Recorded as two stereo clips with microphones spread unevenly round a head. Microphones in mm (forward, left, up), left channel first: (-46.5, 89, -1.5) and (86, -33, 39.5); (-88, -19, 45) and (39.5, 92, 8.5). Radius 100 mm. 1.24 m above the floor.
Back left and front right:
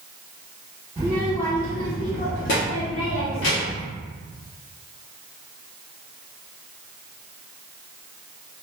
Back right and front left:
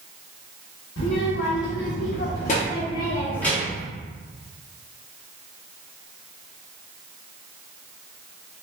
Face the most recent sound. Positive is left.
turn(degrees=130)